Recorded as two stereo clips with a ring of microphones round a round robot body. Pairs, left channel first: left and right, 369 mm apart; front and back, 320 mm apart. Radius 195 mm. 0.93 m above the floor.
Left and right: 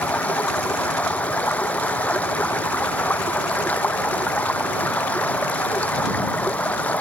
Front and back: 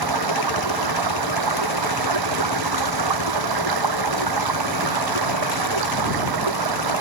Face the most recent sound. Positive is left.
turn(degrees=175)